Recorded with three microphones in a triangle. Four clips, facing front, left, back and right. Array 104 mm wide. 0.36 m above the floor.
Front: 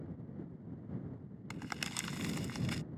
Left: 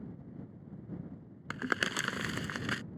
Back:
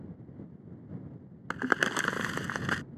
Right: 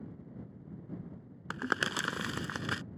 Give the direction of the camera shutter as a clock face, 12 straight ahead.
I don't hear a camera shutter.